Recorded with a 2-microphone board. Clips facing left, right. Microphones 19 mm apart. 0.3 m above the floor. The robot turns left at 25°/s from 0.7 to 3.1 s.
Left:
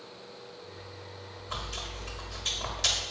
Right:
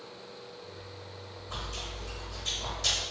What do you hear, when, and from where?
1.5 s chewing: 20° left (ahead or behind), 1.2 m; by 3.0 s 30° left (ahead or behind), 1.2 m